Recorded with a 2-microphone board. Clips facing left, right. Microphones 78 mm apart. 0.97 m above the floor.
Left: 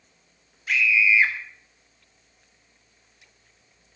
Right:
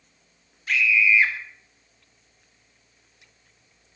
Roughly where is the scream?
Centre.